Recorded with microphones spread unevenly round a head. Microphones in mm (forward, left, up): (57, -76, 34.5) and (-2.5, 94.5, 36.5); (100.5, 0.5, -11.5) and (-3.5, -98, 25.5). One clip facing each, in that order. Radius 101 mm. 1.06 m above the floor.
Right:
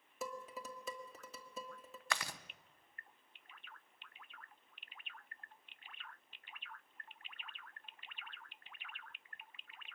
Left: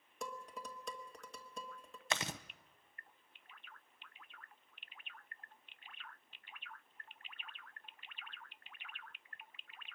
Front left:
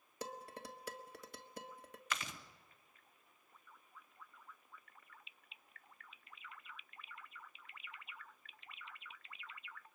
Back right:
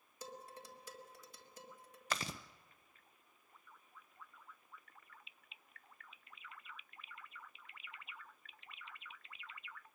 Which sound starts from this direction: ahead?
Dishes clattering, at 0.2 s.